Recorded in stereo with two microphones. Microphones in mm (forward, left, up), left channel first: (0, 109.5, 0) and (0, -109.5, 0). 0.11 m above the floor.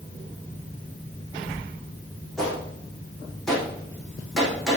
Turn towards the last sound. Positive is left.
turn(degrees=0)  # may be behind; listen again after turning